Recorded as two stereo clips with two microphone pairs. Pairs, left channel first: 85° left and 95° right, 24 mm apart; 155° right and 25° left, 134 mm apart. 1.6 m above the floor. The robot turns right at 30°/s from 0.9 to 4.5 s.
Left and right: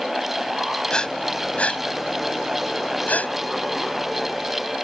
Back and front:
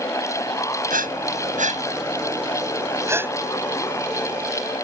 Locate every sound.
0.9 s breathing: 30° left; by 3.3 s 105° left